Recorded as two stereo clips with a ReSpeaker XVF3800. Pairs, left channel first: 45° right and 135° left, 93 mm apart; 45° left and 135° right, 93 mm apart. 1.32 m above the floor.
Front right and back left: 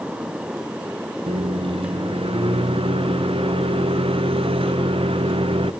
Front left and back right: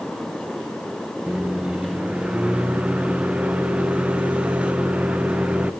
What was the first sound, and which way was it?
A microwave, 145° left.